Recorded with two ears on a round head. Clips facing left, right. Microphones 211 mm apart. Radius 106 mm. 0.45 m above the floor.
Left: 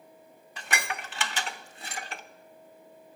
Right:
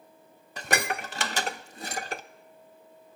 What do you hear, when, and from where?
0.6 s dishes clattering: 35° right (ahead or behind), 0.5 m